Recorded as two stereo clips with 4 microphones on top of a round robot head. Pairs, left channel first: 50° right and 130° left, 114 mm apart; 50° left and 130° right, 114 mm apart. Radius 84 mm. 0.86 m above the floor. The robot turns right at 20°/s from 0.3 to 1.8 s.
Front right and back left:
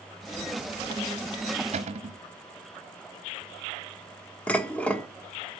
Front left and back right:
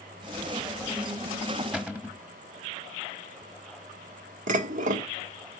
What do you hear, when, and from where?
1.7 s a cupboard door: 150° left, 1.2 m
4.5 s dishes clattering: 130° right, 1.2 m